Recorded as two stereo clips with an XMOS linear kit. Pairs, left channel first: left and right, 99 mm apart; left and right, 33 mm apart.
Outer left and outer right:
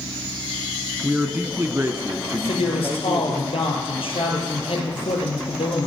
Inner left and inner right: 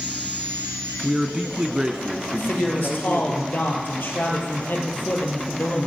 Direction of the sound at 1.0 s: 10° right (ahead or behind).